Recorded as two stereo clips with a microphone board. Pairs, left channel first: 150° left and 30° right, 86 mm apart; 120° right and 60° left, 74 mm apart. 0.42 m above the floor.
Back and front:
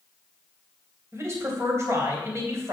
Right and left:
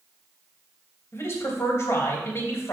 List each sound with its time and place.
1.1 s a man speaking: 80° right, 2.5 m